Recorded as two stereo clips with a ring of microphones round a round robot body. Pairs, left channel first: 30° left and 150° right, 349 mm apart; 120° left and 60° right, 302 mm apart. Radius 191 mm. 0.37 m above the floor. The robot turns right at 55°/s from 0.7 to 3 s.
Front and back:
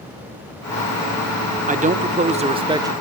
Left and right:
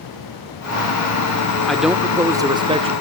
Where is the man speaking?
155° right, 0.8 m; by 2.9 s 85° right, 0.8 m.